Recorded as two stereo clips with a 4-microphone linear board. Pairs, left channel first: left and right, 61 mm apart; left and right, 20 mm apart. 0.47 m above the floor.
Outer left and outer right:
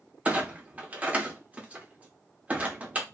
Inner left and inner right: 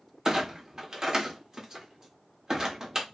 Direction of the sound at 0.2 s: 25° right (ahead or behind).